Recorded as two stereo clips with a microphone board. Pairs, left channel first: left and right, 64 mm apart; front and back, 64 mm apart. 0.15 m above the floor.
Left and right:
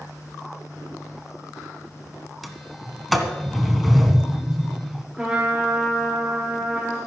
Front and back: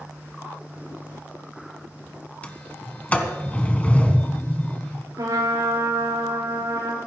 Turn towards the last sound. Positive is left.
turn(degrees=-175)